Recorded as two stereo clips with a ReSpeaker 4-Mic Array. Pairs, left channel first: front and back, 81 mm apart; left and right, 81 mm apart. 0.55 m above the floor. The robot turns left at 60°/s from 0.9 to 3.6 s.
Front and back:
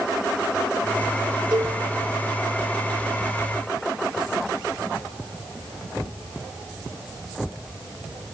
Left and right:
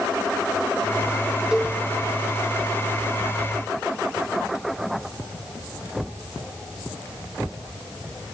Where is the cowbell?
170° right, 1.0 m; by 1.8 s 175° left, 1.0 m.